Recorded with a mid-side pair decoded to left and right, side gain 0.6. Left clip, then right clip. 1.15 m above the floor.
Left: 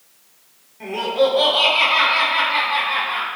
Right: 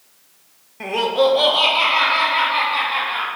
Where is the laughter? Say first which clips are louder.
Right 1 dB; 50° right, 0.6 m; by 3.3 s 25° left, 2 m.